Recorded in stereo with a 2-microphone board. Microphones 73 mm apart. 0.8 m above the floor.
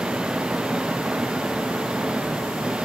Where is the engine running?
10° right (ahead or behind).